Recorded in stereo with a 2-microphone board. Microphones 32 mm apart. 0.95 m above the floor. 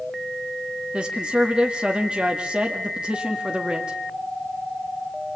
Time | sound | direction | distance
0.9 | a woman speaking | 35° right (ahead or behind) | 2 m